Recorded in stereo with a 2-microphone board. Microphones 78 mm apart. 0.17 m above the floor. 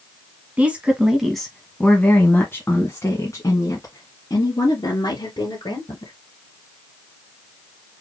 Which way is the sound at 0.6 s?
20° right (ahead or behind).